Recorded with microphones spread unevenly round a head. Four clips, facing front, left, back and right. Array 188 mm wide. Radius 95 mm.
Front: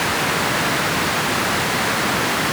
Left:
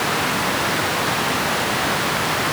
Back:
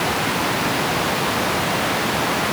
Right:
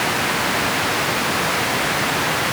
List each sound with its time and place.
Only background noise.